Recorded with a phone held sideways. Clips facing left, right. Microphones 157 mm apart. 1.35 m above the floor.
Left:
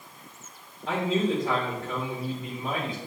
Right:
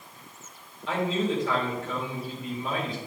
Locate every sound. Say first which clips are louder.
0.9 s a man speaking: left 1 dB; 50° left (ahead or behind), 3.5 m